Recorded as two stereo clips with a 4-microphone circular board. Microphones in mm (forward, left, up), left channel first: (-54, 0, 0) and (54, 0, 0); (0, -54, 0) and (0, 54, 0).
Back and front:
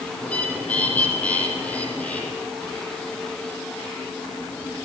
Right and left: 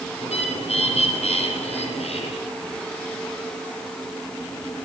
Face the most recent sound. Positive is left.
turn(degrees=-100)